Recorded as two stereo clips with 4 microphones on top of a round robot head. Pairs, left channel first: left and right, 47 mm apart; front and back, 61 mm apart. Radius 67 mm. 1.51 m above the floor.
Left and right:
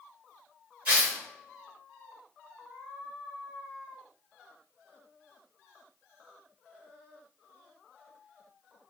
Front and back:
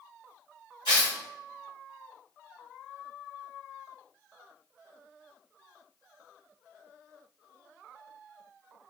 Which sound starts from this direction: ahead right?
Tearing paper, at 0.8 s.